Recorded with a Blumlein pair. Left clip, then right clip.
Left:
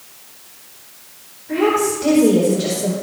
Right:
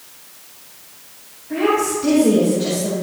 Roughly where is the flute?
I don't hear a flute.